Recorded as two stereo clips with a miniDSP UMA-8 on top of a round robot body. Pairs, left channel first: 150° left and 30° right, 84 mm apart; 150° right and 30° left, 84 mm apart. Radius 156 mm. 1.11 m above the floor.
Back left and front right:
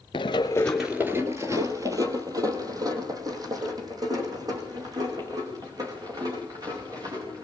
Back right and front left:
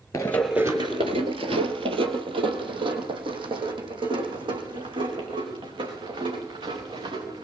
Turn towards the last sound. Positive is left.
turn(degrees=10)